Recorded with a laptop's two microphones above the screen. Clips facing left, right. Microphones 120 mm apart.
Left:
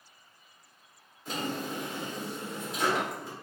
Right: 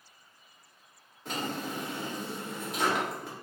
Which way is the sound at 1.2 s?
60° right (ahead or behind).